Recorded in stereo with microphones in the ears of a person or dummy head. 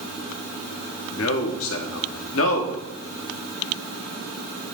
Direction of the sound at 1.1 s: 70° left (ahead or behind).